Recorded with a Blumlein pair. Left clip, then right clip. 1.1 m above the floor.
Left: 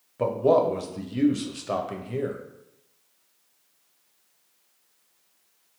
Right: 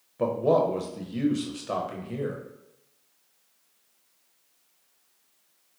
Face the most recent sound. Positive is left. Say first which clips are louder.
# left 2 dB
turn(degrees=10)